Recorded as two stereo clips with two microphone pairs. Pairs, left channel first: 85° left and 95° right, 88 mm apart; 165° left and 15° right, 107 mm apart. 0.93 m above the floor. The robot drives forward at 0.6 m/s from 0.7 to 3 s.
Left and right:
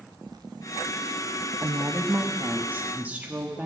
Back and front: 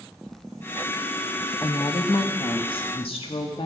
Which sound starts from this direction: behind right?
A woman speaking, at 1.6 s.